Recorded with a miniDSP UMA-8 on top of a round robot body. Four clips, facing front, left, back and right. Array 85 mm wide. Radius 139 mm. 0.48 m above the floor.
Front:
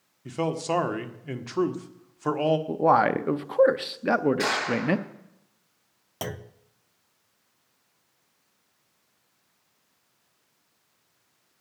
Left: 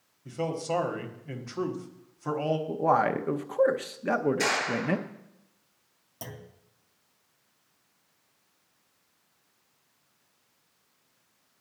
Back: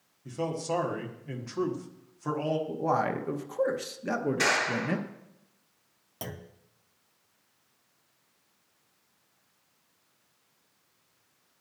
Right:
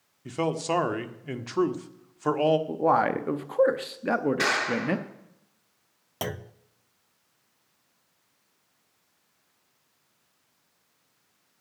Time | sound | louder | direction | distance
0.2 | a man speaking | right 3 dB, front 4 dB | 55° right | 1.6 m
2.7 | a man speaking | right 1 dB, front 10 dB | 10° right | 0.9 m
4.4 | a clap | right 2 dB, front 2 dB | 100° right | 7.5 m
6.2 | a clunk | right 10 dB, front 6 dB | 65° right | 0.7 m